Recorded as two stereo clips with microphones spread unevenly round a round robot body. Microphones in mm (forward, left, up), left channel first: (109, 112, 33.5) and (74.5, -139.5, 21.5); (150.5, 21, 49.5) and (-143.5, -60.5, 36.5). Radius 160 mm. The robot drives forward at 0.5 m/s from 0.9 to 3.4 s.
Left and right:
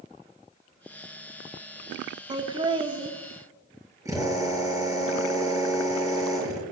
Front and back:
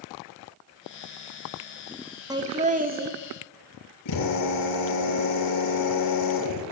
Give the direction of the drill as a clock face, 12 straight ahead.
1 o'clock.